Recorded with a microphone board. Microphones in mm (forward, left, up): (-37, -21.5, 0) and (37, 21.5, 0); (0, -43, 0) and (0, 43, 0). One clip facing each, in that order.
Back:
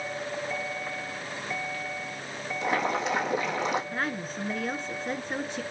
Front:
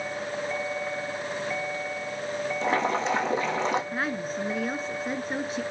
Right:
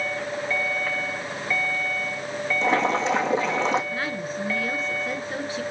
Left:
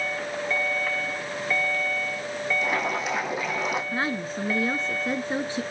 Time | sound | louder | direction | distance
2.6 | boiling | front 1 dB, right 9 dB | 30° right | 4.5 m
3.9 | a woman speaking | front 2 dB, left 1 dB | 110° left | 1.2 m